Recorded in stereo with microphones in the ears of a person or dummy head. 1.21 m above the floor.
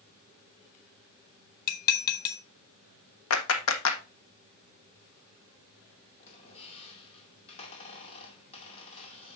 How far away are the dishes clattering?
About 0.9 m.